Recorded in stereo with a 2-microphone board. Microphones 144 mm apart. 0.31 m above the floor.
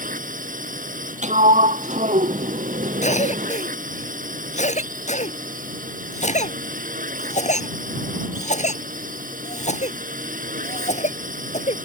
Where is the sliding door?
55° right (ahead or behind).